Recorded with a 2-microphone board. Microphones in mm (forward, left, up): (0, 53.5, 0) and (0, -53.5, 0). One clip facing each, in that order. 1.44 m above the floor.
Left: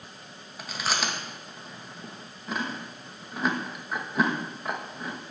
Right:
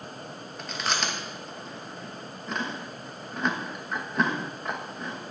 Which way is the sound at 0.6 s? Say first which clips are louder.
Even; 5° left (ahead or behind).